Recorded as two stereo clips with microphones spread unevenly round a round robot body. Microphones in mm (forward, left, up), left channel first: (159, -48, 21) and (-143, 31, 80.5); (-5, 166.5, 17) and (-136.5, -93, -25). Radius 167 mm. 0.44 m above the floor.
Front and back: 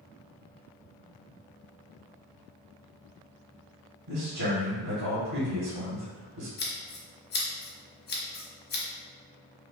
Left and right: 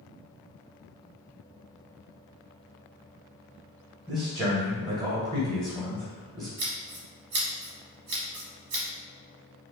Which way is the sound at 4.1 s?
175° left.